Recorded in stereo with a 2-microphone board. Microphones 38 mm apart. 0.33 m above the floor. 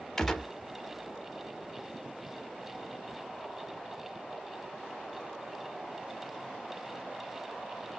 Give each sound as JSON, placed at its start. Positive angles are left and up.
{"t": 0.2, "sound": "a gunshot", "side_deg": 15, "distance_m": 0.5}